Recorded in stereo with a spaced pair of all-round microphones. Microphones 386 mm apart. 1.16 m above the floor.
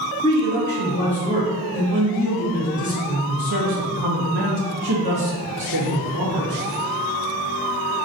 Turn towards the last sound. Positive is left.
turn(degrees=-60)  # may be behind; listen again after turning